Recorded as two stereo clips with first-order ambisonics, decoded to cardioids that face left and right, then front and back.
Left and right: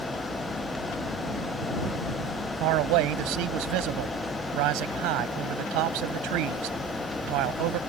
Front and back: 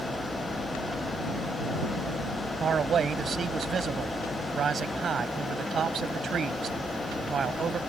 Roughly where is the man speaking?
Right.